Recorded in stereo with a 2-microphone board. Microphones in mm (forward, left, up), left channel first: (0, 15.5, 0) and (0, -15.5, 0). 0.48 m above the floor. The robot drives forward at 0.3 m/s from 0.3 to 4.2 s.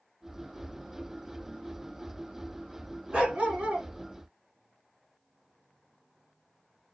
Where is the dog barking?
30° right (ahead or behind), 1.8 m; by 3.9 s 25° right (ahead or behind), 2.0 m.